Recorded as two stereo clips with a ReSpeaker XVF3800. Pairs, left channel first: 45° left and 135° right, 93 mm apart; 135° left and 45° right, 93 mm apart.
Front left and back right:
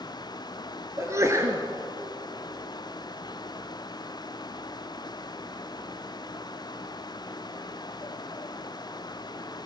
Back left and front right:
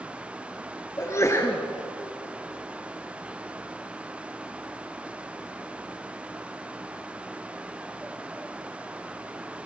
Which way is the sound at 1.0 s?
Straight behind.